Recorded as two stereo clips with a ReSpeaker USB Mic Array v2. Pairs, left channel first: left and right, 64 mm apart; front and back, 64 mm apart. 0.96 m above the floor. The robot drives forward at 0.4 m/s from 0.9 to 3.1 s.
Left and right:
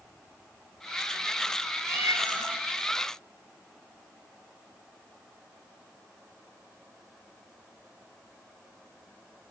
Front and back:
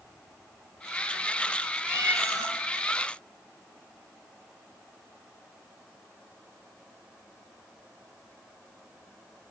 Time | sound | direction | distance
1.9 | a cat meowing | 130° right | 1.8 m